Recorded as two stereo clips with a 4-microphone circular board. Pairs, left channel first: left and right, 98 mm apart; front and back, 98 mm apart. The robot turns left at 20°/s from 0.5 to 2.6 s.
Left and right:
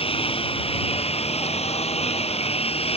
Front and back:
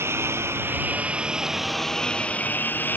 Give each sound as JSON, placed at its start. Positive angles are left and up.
{"t": 0.0, "sound": "a lawn mower", "azimuth_deg": 115}